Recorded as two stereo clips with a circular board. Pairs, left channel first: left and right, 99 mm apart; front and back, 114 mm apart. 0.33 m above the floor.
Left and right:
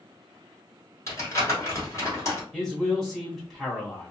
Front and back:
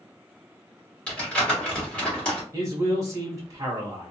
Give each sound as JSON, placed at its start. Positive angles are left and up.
{"t": 1.1, "sound": "crumpling", "azimuth_deg": 75, "distance_m": 1.6}
{"t": 2.5, "sound": "a man speaking", "azimuth_deg": 180, "distance_m": 0.9}